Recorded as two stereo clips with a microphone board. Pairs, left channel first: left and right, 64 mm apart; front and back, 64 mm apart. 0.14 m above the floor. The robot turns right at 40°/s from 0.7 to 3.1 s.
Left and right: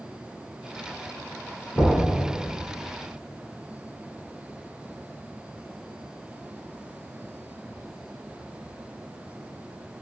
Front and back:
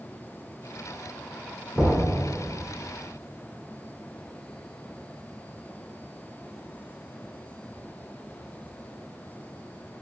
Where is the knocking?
75° left, 1.1 m; by 2.0 s 85° left, 1.1 m.